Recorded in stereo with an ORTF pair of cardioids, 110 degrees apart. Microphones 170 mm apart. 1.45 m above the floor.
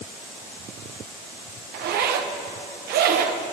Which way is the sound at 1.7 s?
65° right.